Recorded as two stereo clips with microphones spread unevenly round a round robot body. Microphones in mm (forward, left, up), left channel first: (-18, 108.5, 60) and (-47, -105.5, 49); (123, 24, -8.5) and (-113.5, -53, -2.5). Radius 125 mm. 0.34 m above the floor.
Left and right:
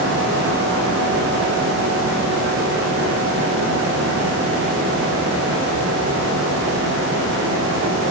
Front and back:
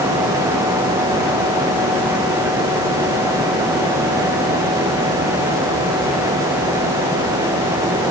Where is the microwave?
I don't hear a microwave.